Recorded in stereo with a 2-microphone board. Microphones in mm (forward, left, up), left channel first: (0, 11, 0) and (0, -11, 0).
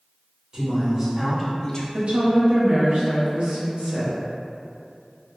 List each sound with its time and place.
0.5 s a man speaking: 35° right (ahead or behind), 1.3 m; by 1.8 s 35° left (ahead or behind), 0.5 m
1.9 s a woman speaking: 60° right (ahead or behind), 0.9 m